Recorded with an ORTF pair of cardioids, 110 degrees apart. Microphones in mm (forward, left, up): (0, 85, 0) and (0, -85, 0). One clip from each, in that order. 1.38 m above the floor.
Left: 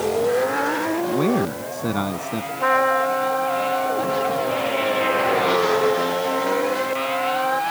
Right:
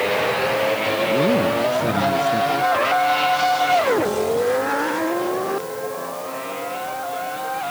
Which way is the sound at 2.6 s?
50° left.